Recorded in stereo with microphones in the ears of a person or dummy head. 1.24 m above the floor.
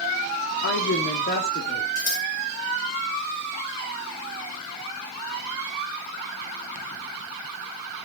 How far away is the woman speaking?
About 3 m.